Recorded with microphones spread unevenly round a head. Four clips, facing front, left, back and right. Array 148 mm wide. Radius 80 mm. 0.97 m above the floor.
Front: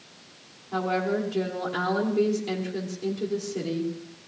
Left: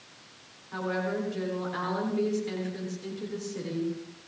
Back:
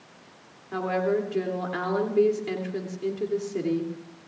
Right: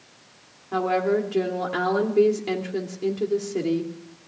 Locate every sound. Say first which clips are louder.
0.7 s a woman speaking: right 9 dB, back 1 dB; 110° right, 2.5 m